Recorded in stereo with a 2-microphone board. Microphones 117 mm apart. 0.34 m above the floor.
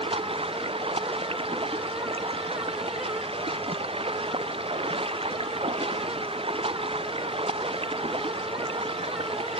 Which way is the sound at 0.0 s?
60° right (ahead or behind).